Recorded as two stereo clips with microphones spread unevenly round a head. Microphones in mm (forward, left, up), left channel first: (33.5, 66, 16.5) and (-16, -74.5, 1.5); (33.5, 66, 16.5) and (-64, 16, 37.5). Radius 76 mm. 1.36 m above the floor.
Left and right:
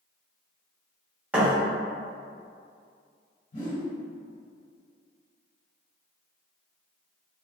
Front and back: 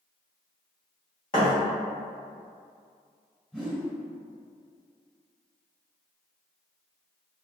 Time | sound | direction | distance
1.3 | a thud | 25° right | 0.8 m
3.5 | a whoosh | 110° left | 1.6 m